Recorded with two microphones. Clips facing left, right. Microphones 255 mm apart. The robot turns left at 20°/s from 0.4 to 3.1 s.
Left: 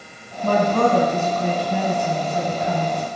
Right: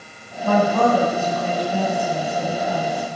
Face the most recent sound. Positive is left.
turn(degrees=75)